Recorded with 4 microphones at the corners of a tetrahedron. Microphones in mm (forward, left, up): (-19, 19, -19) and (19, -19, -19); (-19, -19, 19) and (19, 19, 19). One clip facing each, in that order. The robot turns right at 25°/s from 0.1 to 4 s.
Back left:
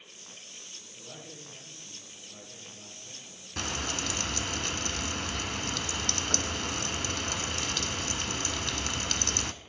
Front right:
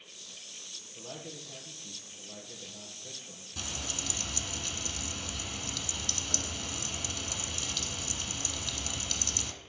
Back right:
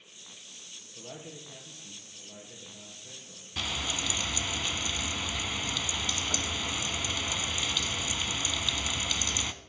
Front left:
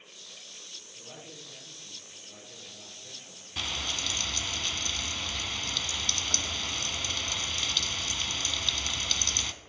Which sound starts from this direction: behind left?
Frying, at 3.6 s.